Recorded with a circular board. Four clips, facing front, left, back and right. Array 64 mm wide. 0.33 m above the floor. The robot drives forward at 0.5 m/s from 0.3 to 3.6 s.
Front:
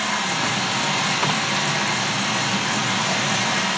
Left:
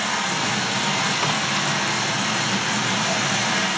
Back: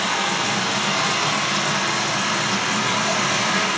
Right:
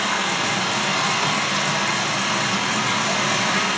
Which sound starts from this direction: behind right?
Running water, at 0.0 s.